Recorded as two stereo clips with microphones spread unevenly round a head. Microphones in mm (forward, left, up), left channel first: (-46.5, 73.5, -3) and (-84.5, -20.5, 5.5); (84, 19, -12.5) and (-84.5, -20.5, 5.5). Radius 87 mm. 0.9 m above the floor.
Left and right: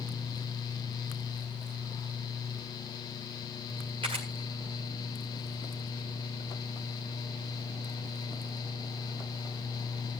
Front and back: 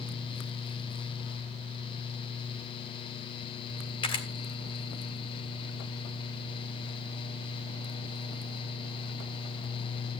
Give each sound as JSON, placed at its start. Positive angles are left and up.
{"t": 4.0, "sound": "a camera shutter", "azimuth_deg": -50, "distance_m": 1.8}